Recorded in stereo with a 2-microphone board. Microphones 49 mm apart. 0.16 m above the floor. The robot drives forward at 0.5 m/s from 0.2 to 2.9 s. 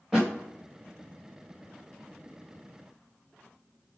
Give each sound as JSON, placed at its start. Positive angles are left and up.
{"t": 0.1, "sound": "a thud", "side_deg": -5, "distance_m": 4.0}